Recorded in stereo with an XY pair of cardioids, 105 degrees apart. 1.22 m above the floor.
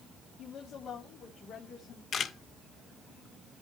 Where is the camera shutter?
60° left, 1.7 m.